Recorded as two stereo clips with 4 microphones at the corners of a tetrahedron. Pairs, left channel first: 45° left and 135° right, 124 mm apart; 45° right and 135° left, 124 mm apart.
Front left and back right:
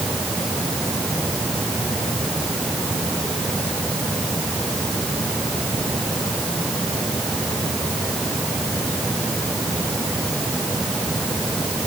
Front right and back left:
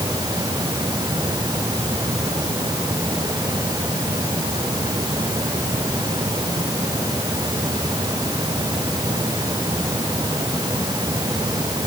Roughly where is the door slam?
No door slam in this recording.